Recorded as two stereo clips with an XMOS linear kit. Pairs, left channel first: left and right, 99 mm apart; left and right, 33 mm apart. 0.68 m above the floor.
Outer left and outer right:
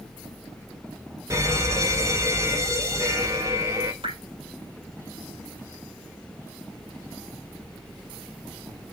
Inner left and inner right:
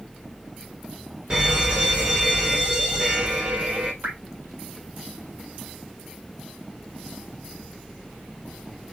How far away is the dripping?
About 5.5 m.